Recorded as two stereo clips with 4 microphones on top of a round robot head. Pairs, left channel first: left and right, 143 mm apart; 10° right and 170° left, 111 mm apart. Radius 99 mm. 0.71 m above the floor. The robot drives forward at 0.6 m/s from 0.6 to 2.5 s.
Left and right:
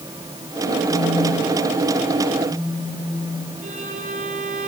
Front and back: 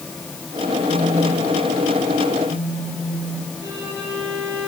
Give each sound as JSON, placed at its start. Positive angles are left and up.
{"t": 0.9, "sound": "a phone buzzing", "azimuth_deg": 110, "distance_m": 8.0}
{"t": 3.6, "sound": "a violin", "azimuth_deg": -120, "distance_m": 8.0}